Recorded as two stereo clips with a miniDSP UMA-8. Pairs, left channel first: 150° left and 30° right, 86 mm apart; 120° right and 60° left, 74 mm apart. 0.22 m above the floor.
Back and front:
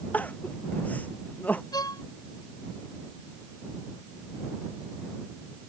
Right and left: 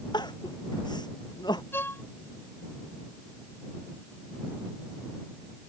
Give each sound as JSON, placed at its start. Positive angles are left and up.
{"t": 0.1, "sound": "crying", "azimuth_deg": -135}
{"t": 1.7, "sound": "a violin", "azimuth_deg": -175}